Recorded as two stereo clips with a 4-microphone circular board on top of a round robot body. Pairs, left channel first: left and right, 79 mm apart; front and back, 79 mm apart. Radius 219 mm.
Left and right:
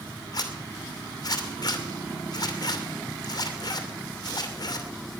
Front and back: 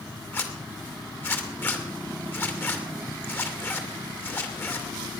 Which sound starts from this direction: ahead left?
A zipper, at 0.3 s.